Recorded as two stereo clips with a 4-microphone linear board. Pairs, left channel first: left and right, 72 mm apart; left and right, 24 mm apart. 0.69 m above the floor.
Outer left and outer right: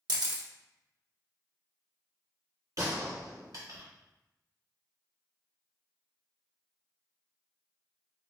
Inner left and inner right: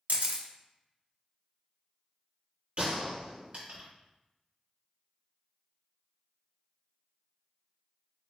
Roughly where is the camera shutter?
Right.